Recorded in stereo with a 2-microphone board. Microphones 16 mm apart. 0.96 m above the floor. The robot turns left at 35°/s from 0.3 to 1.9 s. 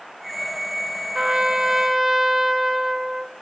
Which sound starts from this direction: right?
A trumpet, at 1.1 s.